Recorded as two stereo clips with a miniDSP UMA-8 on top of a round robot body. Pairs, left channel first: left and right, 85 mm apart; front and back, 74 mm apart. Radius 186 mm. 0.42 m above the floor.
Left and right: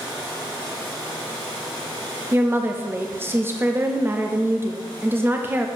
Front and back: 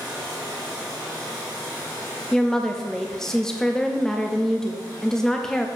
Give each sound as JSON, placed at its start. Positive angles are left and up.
{"t": 2.3, "sound": "a woman speaking", "azimuth_deg": -75, "distance_m": 0.8}